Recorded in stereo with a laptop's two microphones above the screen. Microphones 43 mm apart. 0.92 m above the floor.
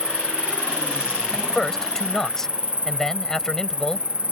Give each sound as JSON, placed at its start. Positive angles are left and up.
{"t": 0.0, "sound": "an insect", "side_deg": -30}
{"t": 1.3, "sound": "a man speaking", "side_deg": 10}